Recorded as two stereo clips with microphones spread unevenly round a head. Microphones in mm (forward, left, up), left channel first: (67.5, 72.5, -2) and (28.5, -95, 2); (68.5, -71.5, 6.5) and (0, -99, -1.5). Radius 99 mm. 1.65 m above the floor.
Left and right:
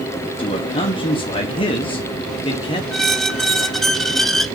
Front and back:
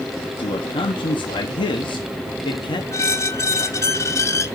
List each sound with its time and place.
0.4 s a man speaking: 15° left, 1.5 m
2.9 s a squeak: 15° right, 1.0 m